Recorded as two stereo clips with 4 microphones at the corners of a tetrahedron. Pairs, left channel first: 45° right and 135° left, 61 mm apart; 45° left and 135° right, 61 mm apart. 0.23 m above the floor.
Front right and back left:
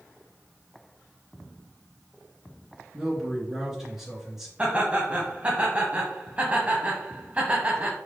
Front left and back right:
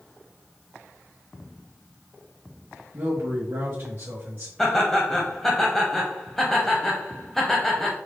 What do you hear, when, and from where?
2.9 s a man speaking: 145° right, 1.3 m
4.6 s laughter: 120° left, 1.0 m